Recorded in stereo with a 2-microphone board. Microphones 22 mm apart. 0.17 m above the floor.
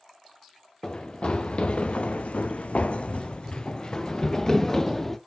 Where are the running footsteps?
45° left (ahead or behind), 1.3 m; by 5.2 s 15° left (ahead or behind), 1.5 m.